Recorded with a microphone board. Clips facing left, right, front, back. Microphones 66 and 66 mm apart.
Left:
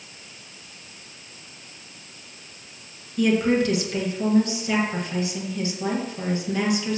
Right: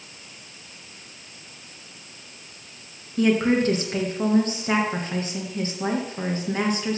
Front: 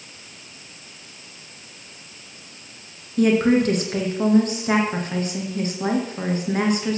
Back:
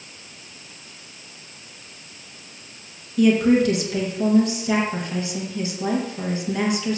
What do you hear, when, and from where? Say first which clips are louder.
3.2 s a woman speaking: even, back 1 dB; 45° right, 3 m